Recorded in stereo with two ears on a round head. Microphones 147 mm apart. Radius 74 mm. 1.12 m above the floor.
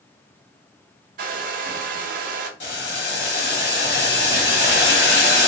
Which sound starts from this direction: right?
A hair dryer, at 1.2 s.